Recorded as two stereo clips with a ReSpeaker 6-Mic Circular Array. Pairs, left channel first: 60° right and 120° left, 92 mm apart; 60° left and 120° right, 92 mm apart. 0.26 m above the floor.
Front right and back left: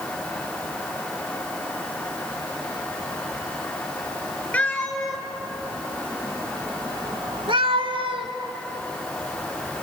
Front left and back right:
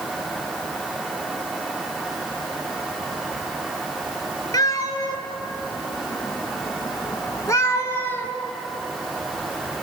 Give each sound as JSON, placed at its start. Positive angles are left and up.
{"t": 4.5, "sound": "a cat meowing", "azimuth_deg": 20, "distance_m": 2.5}